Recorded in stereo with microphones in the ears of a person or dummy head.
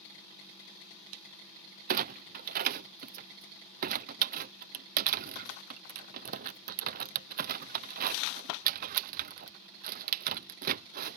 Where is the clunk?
50° right (ahead or behind).